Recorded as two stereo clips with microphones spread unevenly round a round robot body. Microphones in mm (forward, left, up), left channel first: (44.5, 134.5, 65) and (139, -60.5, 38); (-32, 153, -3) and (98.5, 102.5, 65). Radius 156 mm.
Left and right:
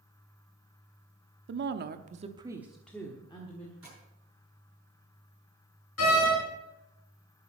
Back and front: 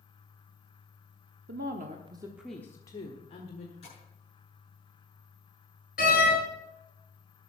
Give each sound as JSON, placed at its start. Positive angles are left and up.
{"t": 1.5, "sound": "a woman speaking", "azimuth_deg": -65, "distance_m": 1.1}
{"t": 3.8, "sound": "tapping", "azimuth_deg": -150, "distance_m": 7.5}
{"t": 6.0, "sound": "a door slam", "azimuth_deg": 150, "distance_m": 6.5}